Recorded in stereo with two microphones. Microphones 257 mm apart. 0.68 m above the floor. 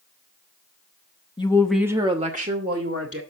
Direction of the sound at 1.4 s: 20° left (ahead or behind).